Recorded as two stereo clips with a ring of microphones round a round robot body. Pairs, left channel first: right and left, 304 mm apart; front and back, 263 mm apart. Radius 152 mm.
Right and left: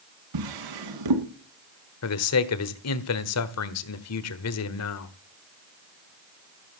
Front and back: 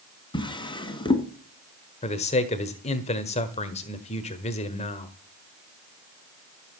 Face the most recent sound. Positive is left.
turn(degrees=-65)